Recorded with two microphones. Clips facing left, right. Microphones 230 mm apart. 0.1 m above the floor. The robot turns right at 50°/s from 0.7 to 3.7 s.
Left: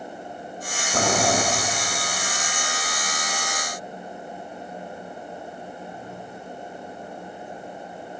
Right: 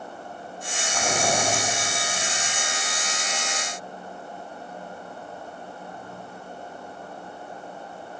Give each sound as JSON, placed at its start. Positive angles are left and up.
{"t": 0.9, "sound": "boiling", "side_deg": 50, "distance_m": 5.5}